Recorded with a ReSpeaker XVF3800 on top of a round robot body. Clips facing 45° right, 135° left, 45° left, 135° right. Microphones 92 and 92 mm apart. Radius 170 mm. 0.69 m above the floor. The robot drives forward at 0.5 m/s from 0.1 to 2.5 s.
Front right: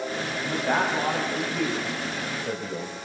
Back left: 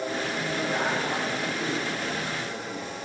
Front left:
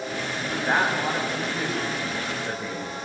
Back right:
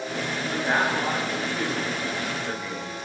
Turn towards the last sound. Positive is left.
turn(degrees=-35)